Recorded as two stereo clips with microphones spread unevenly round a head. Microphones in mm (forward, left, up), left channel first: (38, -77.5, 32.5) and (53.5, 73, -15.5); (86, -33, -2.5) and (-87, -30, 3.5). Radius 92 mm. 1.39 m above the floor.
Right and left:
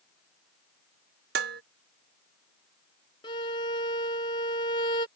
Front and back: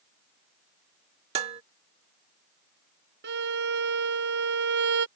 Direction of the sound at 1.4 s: 120° left.